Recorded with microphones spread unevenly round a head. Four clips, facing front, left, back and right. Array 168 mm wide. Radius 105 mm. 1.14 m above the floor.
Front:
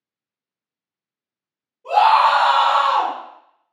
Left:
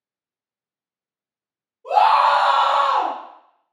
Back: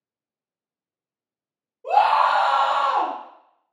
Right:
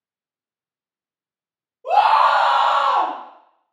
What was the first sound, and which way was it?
A scream, 145° right.